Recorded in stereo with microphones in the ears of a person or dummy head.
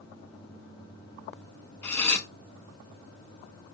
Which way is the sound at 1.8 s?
10° left (ahead or behind).